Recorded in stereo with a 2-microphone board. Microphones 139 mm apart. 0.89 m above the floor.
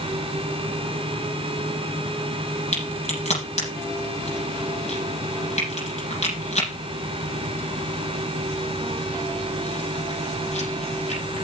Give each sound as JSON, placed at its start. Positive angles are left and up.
{"t": 2.7, "sound": "a crack", "side_deg": 55, "distance_m": 7.0}